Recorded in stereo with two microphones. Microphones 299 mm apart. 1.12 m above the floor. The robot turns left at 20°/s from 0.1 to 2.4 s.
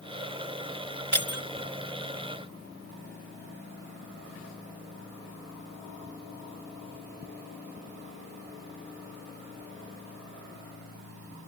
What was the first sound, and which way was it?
Breaking glass, 75° right (ahead or behind).